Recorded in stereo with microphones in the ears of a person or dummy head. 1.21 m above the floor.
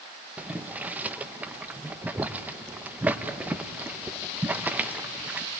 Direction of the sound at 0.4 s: 10° right (ahead or behind).